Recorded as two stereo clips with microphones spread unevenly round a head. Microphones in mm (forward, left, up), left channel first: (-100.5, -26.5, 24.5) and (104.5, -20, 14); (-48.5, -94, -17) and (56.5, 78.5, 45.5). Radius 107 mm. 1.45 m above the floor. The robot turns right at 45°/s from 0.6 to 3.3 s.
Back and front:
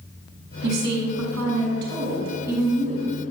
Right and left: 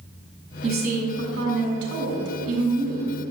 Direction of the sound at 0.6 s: 5° right.